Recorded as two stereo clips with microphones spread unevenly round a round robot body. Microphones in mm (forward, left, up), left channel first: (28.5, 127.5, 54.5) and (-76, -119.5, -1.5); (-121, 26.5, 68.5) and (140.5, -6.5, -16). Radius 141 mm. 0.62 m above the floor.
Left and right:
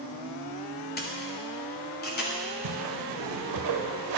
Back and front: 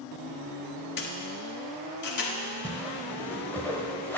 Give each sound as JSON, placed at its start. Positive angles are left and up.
{"t": 1.0, "sound": "a camera shutter", "azimuth_deg": 120, "distance_m": 1.5}
{"t": 2.6, "sound": "a whoosh", "azimuth_deg": -105, "distance_m": 1.0}